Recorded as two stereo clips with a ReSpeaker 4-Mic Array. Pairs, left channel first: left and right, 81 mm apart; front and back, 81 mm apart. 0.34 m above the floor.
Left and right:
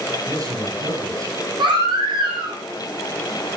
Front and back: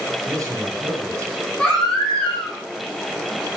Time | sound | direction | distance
0.3 | a man speaking | 125° right | 7.5 m
1.6 | a baby crying | 80° right | 9.5 m